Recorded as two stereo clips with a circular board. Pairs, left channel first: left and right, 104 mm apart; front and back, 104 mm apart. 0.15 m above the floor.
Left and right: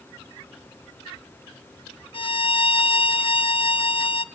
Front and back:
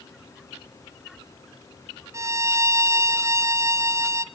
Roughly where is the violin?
Behind left.